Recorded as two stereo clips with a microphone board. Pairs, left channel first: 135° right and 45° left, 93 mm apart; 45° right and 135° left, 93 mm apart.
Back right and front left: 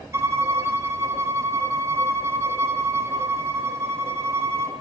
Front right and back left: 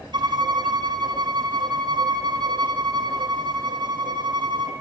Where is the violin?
105° left, 1.9 m.